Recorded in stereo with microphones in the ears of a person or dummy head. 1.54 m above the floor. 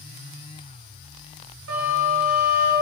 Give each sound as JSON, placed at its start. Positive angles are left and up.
{"t": 1.7, "sound": "a flute", "side_deg": -75, "distance_m": 5.5}